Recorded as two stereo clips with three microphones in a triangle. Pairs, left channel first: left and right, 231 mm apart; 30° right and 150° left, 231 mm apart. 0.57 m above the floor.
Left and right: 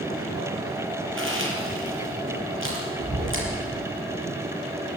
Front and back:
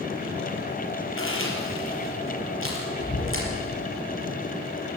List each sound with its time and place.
1.2 s chewing: 60° right, 5 m